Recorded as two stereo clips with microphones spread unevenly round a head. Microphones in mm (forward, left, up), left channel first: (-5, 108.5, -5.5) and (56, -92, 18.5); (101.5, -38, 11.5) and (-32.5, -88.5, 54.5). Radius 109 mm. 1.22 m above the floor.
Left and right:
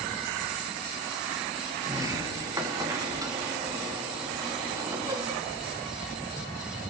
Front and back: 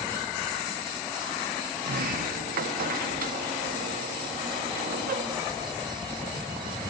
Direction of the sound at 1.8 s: 150° right.